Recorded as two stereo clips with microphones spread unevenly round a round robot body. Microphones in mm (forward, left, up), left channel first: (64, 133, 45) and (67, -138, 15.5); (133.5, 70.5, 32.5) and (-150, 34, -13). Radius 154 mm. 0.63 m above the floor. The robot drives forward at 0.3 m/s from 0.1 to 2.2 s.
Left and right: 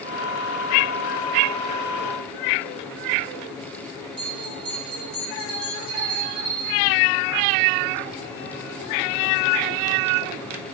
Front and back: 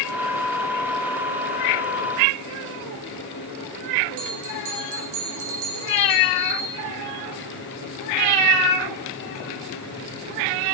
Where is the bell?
165° right, 2.5 m.